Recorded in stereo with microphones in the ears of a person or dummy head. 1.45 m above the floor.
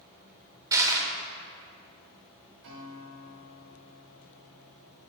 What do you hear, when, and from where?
0.7 s crushing: 20° right (ahead or behind), 1.4 m
2.6 s a guitar: 50° right (ahead or behind), 2.5 m